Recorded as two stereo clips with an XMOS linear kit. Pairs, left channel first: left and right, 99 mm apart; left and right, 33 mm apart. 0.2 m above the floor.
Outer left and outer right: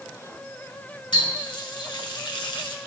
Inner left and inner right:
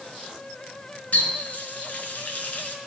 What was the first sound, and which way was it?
A running tap, 60° left (ahead or behind).